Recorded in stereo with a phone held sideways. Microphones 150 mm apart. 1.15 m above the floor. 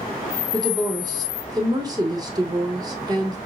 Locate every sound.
0.5 s a woman speaking: 25° right (ahead or behind), 1.2 m